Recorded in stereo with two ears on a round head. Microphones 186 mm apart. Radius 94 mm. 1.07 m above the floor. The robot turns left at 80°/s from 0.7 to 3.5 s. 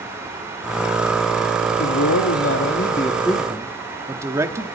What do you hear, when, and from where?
1.8 s a man speaking: 125° left, 1.8 m; by 4.7 s 15° right, 1.8 m